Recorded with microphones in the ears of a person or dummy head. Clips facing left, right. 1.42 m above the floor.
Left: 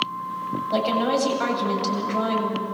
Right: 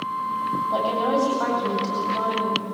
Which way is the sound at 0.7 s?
30° left (ahead or behind).